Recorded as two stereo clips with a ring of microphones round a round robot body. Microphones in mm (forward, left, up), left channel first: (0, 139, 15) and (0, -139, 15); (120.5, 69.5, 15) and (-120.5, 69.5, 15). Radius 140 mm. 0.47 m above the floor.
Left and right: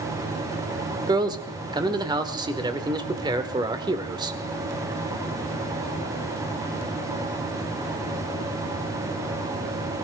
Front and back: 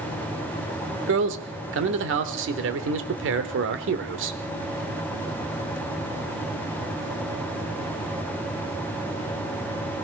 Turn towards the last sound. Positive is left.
turn(degrees=-160)